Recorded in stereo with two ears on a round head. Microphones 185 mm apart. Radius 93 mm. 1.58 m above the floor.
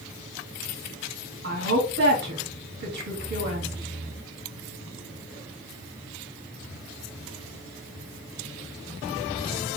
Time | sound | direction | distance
1.4 | a woman speaking | 60° right (ahead or behind) | 2.5 m